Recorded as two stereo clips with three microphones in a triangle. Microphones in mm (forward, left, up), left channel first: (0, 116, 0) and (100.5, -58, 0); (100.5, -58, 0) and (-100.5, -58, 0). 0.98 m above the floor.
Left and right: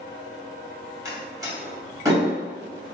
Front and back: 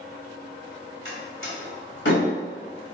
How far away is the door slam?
About 1.9 m.